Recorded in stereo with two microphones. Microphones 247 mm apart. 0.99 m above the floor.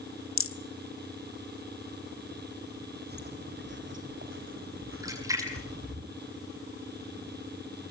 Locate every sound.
0.4 s a rattle: 60° left (ahead or behind), 1.2 m
3.1 s footsteps: 40° right (ahead or behind), 3 m; by 6.0 s 65° right (ahead or behind), 4 m
5.0 s a splash: 15° right (ahead or behind), 7.5 m